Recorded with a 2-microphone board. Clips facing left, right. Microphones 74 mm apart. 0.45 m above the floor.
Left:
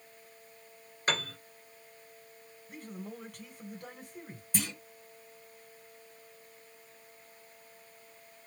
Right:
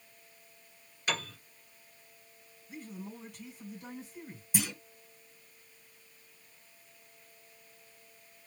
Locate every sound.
1.1 s a piano: 45° left (ahead or behind), 1.5 m
2.7 s a man speaking: 55° left (ahead or behind), 2.5 m
4.5 s a clunk: 5° right (ahead or behind), 1.6 m